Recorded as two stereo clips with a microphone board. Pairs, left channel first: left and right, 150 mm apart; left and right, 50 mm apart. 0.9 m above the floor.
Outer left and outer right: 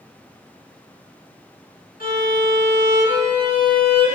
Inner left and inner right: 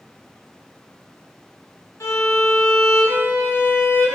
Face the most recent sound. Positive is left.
turn(degrees=75)  # may be behind; listen again after turning